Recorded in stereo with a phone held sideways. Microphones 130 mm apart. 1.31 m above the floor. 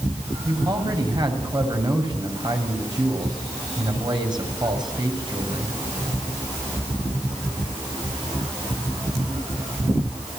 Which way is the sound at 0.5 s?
35° right (ahead or behind).